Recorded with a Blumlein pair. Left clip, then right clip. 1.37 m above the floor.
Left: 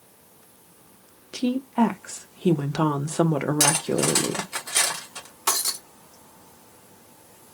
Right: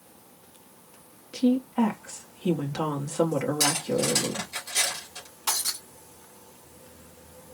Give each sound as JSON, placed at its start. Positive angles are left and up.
{"t": 1.3, "sound": "a woman speaking", "azimuth_deg": 20, "distance_m": 1.0}
{"t": 3.6, "sound": "cutlery clinking", "azimuth_deg": 60, "distance_m": 2.0}
{"t": 5.5, "sound": "breaking glass", "azimuth_deg": 65, "distance_m": 2.0}